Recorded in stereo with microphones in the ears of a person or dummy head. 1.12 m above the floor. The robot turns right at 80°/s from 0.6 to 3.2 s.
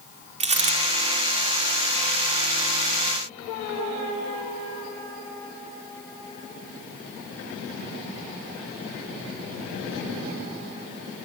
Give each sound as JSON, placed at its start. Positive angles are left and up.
{"t": 0.4, "sound": "a dropped coin", "side_deg": -30, "distance_m": 1.1}